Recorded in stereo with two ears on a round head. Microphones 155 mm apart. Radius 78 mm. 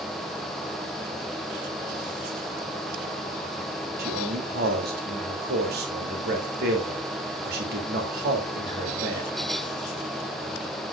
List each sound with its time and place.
4.0 s a man speaking: 65° right (ahead or behind), 2.5 m